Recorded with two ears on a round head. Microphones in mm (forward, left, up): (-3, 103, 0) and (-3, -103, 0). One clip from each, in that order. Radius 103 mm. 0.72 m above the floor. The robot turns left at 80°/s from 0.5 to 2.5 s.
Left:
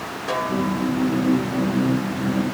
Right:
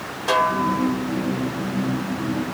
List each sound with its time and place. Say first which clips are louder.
0.3 s a snare drum: right 5 dB; 40° right; by 1.0 s 75° right